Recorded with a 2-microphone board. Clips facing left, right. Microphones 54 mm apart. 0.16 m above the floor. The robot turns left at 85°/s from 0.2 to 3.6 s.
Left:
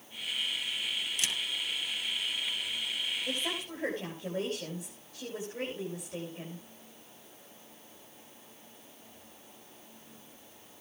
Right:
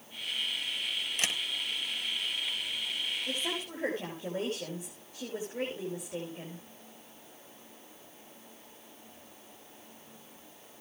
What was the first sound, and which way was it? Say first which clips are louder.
A camera shutter: right 3 dB; 40° right (ahead or behind).